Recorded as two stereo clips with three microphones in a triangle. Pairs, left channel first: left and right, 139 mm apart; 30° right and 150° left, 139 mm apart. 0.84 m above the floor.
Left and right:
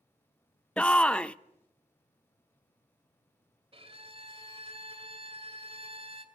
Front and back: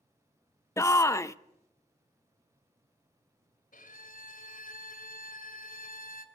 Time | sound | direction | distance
0.8 | a shout | 15° left | 0.5 m
3.7 | a violin | 40° right | 2.5 m